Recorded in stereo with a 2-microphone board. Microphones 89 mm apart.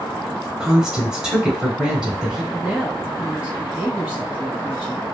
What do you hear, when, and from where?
0.6 s a woman speaking: 10° right (ahead or behind), 1.1 m
2.5 s a woman speaking: 20° right (ahead or behind), 1.6 m